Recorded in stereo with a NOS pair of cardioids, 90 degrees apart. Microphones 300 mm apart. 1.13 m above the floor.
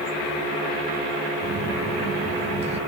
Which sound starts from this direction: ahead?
A phone buzzing, at 1.4 s.